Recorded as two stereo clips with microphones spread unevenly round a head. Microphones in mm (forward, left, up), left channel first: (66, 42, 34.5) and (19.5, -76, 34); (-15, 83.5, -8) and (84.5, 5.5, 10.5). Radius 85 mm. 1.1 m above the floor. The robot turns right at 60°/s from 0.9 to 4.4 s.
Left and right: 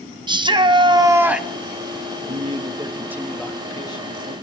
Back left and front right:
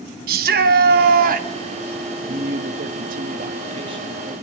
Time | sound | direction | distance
0.3 | a shout | 60° right | 1.5 m
2.3 | a man speaking | 85° right | 1.7 m